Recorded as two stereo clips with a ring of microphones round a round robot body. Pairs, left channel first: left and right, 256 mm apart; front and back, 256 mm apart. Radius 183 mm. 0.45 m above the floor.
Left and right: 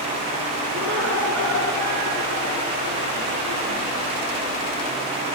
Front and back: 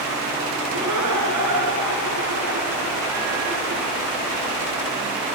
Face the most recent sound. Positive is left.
turn(degrees=-150)